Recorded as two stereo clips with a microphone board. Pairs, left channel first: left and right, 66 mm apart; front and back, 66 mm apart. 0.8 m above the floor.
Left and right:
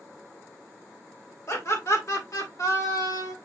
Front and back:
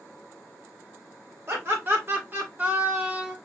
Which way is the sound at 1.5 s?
130° left.